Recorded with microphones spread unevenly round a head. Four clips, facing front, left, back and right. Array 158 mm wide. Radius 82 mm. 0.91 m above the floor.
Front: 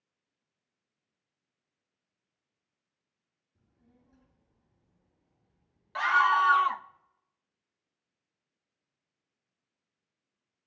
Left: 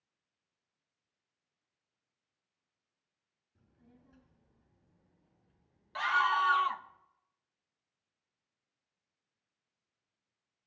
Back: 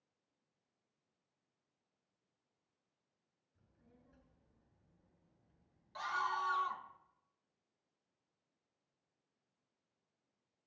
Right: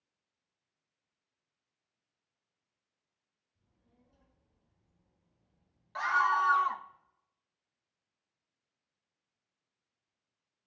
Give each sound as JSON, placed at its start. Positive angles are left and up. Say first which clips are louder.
{"t": 3.5, "sound": "a child speaking", "louder": "left 7 dB, front 3 dB", "azimuth_deg": 70, "distance_m": 8.0}
{"t": 6.0, "sound": "a scream", "louder": "right 1 dB, front 14 dB", "azimuth_deg": 0, "distance_m": 0.8}